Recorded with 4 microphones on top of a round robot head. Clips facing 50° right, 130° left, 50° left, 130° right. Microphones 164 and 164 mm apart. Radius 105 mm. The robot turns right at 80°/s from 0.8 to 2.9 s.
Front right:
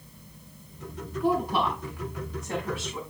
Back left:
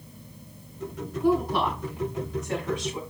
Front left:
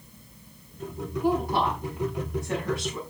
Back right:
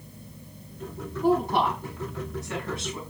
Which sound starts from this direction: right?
A woman speaking, at 1.2 s.